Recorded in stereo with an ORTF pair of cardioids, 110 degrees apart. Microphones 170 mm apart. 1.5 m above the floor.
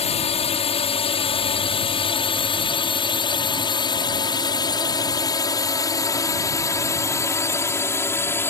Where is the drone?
40° left; by 8.5 s 15° left.